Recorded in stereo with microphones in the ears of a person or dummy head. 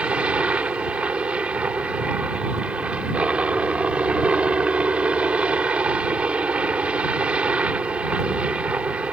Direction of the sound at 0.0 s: 5° right (ahead or behind).